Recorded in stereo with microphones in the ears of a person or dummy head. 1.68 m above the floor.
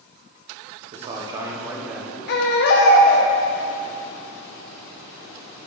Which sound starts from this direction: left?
A baby crying, at 2.3 s.